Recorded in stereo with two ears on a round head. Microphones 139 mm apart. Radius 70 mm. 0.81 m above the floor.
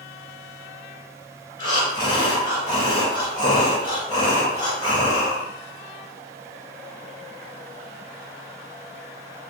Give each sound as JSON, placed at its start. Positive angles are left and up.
{"t": 1.6, "sound": "breathing", "side_deg": 30, "distance_m": 1.6}